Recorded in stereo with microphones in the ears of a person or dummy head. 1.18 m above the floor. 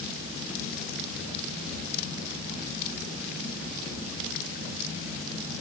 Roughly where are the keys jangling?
No keys jangling in this recording.